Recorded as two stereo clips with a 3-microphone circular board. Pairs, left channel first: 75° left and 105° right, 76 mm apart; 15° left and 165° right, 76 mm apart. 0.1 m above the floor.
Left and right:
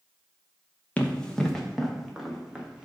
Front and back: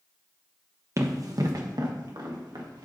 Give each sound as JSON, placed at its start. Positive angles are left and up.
{"t": 1.0, "sound": "running footsteps", "azimuth_deg": 150, "distance_m": 1.7}